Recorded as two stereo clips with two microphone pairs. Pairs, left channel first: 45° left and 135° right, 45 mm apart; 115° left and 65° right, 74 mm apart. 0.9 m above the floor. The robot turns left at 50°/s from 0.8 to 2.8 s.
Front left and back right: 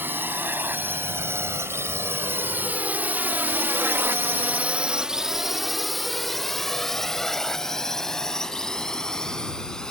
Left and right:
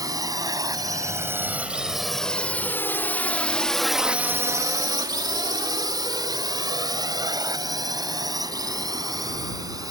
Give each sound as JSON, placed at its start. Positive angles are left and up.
{"t": 0.0, "sound": "a drone", "azimuth_deg": -100}